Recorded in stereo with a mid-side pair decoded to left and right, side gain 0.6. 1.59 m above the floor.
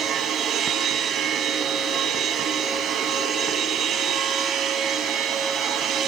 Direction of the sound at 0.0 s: 60° right.